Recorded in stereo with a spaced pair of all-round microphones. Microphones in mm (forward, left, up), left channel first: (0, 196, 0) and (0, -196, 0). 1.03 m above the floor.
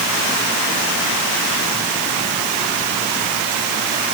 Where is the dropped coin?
No dropped coin in this recording.